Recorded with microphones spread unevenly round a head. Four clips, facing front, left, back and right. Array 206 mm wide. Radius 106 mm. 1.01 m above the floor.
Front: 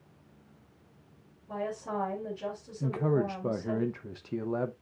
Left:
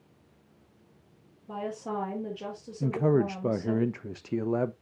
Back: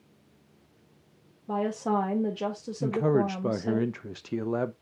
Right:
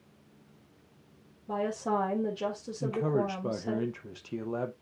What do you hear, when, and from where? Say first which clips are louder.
1.5 s a woman speaking: right 4 dB, back 7 dB; 165° right, 2 m
2.8 s a man speaking: left 4 dB, back 4 dB; 125° left, 0.6 m